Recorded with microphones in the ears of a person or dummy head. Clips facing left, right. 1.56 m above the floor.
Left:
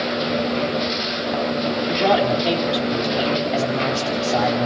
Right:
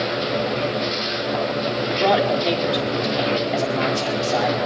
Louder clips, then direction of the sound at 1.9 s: Even; 5° right (ahead or behind).